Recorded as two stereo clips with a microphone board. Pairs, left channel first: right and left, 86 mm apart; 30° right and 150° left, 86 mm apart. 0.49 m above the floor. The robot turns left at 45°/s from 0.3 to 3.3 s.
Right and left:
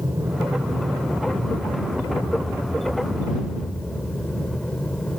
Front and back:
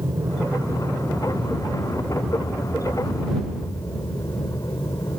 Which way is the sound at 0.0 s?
125° left.